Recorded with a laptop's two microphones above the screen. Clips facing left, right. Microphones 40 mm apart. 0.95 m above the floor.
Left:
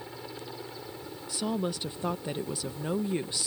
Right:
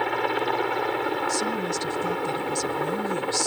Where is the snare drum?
No snare drum in this recording.